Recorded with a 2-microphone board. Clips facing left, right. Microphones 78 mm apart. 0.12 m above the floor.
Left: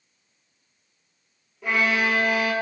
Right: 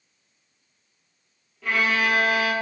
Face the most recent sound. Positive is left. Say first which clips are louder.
# even
turn(degrees=20)  # may be behind; listen again after turning